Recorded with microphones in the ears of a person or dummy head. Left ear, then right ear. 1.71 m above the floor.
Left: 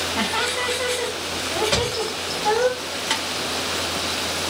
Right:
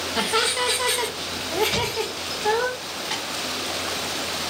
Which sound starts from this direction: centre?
A thud, at 1.7 s.